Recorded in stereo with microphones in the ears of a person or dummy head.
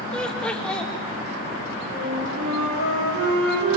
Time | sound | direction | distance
0.1 | laughter | 5° left (ahead or behind) | 2.0 m
1.9 | a flute | 75° right (ahead or behind) | 9 m